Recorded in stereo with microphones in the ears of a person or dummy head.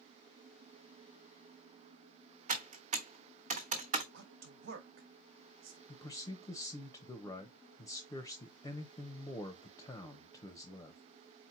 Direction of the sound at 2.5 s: 40° right (ahead or behind).